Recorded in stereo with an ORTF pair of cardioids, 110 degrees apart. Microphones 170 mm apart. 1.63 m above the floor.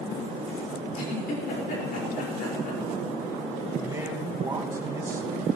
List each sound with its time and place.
0.9 s a giggle: 60° left, 5.5 m
3.8 s a man speaking: 20° right, 2 m